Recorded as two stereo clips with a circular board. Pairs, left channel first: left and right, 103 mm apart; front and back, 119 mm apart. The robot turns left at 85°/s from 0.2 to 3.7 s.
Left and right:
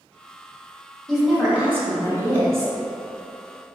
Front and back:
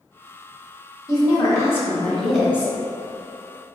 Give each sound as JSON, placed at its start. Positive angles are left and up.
{"t": 1.1, "sound": "a woman speaking", "azimuth_deg": 10, "distance_m": 1.2}